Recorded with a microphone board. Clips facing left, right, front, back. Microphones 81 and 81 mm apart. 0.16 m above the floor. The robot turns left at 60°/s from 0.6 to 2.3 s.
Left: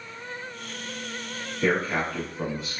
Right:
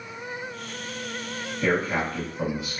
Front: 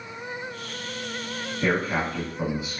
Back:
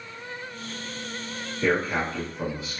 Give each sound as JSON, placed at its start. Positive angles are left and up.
{"t": 1.6, "sound": "a man speaking", "azimuth_deg": 15, "distance_m": 1.0}